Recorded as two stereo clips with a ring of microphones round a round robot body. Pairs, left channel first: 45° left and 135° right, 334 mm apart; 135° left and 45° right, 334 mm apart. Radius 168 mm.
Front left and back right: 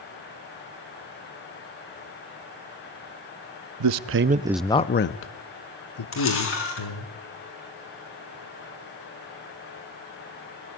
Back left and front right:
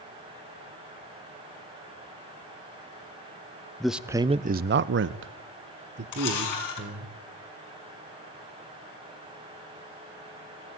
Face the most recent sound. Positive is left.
turn(degrees=100)